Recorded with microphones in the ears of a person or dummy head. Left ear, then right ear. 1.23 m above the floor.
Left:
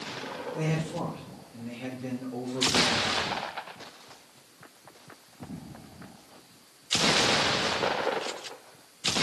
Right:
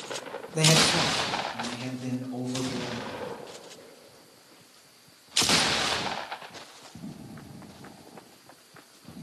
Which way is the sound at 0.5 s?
75° right (ahead or behind).